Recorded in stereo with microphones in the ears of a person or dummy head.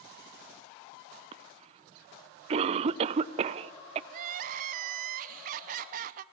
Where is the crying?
45° right (ahead or behind), 0.7 m.